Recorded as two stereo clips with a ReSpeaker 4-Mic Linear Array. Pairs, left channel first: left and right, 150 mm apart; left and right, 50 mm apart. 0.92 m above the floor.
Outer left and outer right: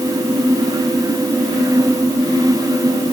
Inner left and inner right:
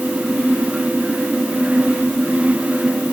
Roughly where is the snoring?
I don't hear snoring.